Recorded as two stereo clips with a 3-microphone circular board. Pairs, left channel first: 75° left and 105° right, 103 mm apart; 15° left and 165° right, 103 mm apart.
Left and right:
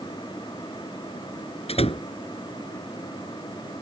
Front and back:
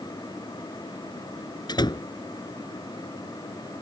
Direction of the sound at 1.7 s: 60° left.